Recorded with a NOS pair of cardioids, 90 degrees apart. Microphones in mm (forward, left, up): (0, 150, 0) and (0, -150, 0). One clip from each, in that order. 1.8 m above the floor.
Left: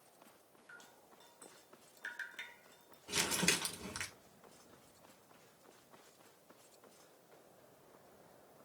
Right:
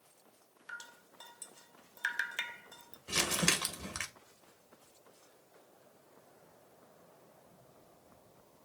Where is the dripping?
60° right, 0.7 m.